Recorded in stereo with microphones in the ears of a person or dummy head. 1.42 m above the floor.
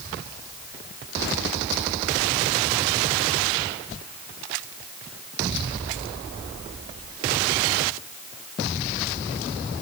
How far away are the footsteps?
I don't hear footsteps.